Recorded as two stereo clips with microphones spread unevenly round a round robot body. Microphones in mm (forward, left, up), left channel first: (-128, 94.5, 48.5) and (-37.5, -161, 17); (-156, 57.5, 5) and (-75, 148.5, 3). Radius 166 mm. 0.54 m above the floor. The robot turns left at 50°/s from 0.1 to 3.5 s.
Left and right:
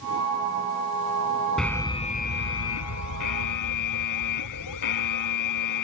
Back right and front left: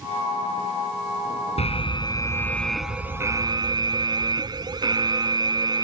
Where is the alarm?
160° right; by 5.8 s 100° left.